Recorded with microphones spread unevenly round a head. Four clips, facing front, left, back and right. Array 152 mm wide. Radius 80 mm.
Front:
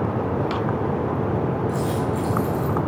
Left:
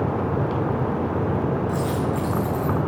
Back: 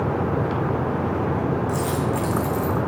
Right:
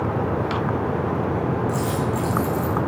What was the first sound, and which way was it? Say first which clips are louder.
A dropped coin: even, even; 155° right.